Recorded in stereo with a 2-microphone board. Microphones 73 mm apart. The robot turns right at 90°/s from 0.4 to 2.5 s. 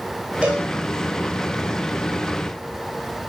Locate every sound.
0.4 s a cowbell: 20° right (ahead or behind), 9.5 m; by 0.7 s 5° left (ahead or behind), 9.5 m